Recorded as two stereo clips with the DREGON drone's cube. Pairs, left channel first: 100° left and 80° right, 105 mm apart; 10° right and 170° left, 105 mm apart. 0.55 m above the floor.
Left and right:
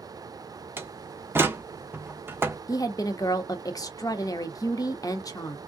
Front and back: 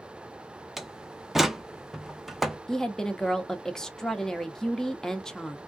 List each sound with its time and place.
0.8 s a door slam: 105° right, 0.6 m
2.7 s a woman speaking: 70° left, 0.8 m